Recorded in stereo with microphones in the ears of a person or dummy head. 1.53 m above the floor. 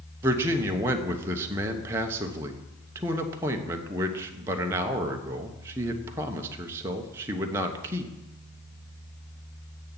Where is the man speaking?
15° right (ahead or behind), 1.1 m.